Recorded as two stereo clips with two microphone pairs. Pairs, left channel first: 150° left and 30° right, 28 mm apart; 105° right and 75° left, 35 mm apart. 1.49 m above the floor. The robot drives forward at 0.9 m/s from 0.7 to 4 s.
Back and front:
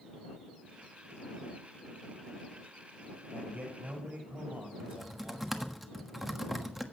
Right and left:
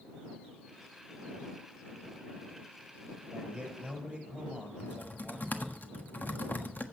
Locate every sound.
3.3 s a man speaking: 5° left, 9 m
4.8 s typing on a keyboard: 110° right, 1.3 m